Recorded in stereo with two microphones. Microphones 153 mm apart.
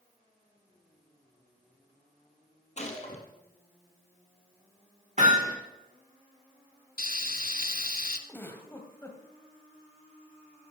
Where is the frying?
70° left (ahead or behind), 1.0 m.